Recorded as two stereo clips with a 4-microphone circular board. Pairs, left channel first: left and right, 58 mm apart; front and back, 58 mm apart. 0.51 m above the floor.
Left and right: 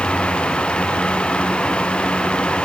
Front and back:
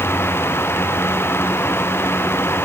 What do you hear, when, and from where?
Only background noise.